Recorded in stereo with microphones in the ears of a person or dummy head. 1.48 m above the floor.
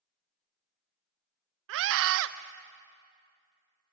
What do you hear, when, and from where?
1.7 s a scream: 70° right (ahead or behind), 1.1 m